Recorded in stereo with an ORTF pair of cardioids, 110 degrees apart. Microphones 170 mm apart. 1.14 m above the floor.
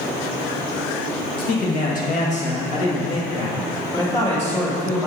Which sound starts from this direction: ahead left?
A man speaking, at 1.4 s.